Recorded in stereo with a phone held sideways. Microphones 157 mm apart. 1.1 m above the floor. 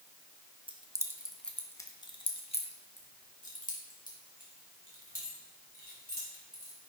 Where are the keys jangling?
30° right (ahead or behind), 0.7 m; by 6.8 s 65° left (ahead or behind), 3.5 m.